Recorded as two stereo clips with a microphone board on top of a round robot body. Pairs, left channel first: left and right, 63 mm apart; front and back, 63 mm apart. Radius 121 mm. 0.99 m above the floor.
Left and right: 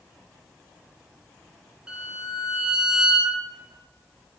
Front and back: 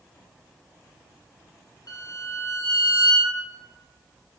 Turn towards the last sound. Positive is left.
turn(degrees=-10)